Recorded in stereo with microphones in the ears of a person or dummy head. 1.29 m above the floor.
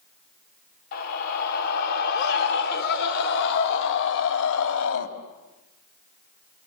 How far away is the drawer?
I don't hear a drawer.